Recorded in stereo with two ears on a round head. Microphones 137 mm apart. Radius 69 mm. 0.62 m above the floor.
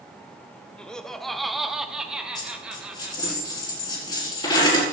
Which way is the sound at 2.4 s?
30° left (ahead or behind).